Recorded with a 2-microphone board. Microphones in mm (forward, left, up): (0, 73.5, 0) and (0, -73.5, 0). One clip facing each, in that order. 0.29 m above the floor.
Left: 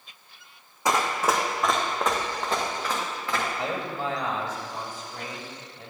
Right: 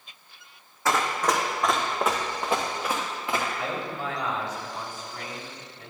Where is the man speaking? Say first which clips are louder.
Left 1 dB; 30° left (ahead or behind), 1.4 m.